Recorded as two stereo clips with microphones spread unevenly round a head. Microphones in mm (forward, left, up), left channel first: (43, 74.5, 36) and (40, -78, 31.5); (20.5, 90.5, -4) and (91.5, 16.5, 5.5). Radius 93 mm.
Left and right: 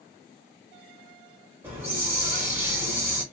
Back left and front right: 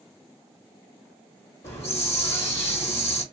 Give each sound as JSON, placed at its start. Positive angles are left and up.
{"t": 1.6, "sound": "a hiss", "azimuth_deg": -170, "distance_m": 1.3}